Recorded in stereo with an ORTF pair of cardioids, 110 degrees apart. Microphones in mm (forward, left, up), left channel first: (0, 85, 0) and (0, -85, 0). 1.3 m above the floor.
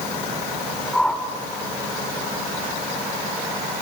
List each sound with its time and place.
0.9 s a whoosh: 5° left, 2 m